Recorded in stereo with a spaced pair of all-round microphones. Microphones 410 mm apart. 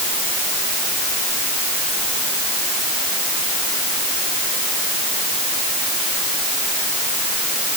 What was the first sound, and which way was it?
Only background noise.